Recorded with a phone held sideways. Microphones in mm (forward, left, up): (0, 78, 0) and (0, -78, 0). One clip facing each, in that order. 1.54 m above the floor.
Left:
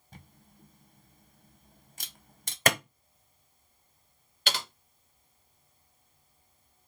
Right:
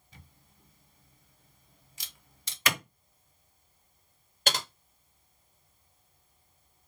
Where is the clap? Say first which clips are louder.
Left 5 dB; 50° left (ahead or behind), 0.7 m.